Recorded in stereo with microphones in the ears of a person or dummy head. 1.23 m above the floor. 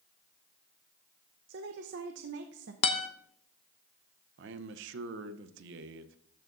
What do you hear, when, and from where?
1.5 s a woman speaking: 65° right (ahead or behind), 0.8 m
2.8 s a guitar: 35° left (ahead or behind), 0.8 m
4.4 s a man speaking: 65° right (ahead or behind), 0.8 m